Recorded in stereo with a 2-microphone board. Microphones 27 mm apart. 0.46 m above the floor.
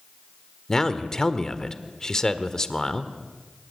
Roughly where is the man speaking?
Left.